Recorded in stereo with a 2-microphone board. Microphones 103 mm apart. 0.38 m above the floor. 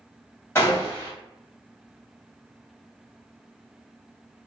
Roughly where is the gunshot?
Left.